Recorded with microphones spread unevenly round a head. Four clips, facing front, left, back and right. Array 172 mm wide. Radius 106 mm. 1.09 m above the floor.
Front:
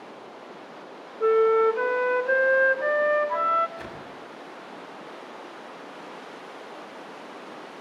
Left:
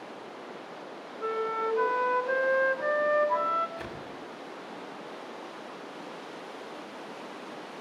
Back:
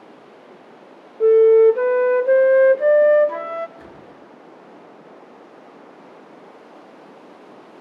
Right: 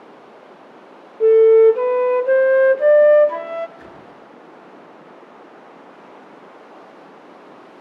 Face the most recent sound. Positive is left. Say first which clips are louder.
# even, front 2 dB
turn(degrees=30)